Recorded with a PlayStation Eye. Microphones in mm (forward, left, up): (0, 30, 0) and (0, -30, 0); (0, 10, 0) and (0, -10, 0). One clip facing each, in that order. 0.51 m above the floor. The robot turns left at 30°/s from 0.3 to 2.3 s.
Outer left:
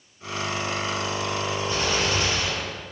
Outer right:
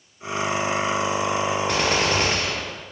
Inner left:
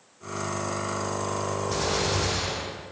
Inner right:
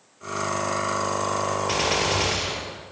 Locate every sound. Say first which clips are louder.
1.7 s a gunshot: outer right 2 dB, inner right 3 dB; 70° right (ahead or behind), 5.5 m; by 2.8 s 50° right (ahead or behind), 5.5 m